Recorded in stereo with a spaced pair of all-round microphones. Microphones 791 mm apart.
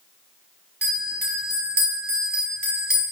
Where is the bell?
10° right (ahead or behind), 3 m.